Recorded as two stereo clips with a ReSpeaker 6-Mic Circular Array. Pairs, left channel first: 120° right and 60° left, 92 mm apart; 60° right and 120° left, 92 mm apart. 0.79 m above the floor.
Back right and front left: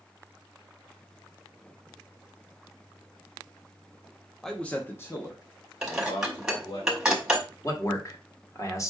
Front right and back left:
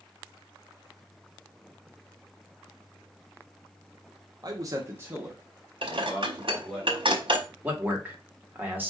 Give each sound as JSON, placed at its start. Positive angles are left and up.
{"t": 4.4, "sound": "a man speaking", "azimuth_deg": 155, "distance_m": 0.7}
{"t": 5.8, "sound": "dishes clattering", "azimuth_deg": 145, "distance_m": 1.1}
{"t": 7.6, "sound": "a man speaking", "azimuth_deg": -170, "distance_m": 1.3}